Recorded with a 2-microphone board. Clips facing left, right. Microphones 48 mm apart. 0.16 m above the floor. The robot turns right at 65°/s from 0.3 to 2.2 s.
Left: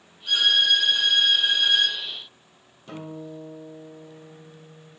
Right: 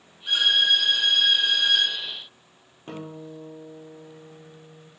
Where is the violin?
55° right, 1.2 m; by 2.0 s 50° left, 1.2 m.